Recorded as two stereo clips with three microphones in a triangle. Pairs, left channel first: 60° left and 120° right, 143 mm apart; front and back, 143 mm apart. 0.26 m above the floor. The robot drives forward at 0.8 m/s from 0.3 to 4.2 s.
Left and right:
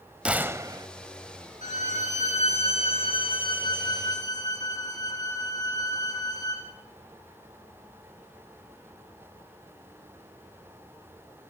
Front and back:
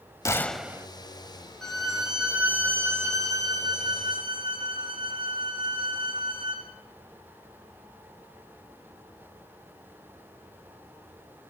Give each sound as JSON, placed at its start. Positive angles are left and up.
{"t": 0.2, "sound": "a gunshot", "azimuth_deg": -45, "distance_m": 0.6}
{"t": 1.6, "sound": "a violin", "azimuth_deg": 85, "distance_m": 3.0}